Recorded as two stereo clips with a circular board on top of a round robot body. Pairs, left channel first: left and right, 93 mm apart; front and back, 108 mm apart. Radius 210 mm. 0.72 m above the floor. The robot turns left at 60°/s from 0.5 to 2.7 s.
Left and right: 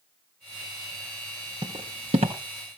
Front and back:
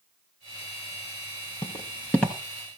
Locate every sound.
1.6 s footsteps: 45° right, 0.9 m; by 2.4 s 90° right, 0.9 m